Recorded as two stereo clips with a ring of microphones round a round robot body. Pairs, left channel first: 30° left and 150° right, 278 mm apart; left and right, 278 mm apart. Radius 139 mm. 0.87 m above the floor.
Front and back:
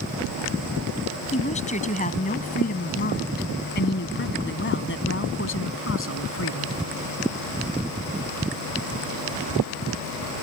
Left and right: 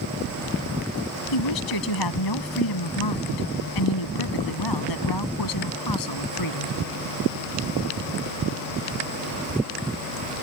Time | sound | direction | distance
1.3 | a woman speaking | 100° left | ?